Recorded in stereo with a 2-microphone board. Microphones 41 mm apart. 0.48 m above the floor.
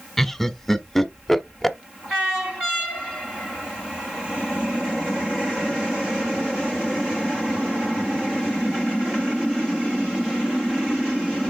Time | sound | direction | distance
0.2 | laughter | 10° left (ahead or behind) | 1.1 m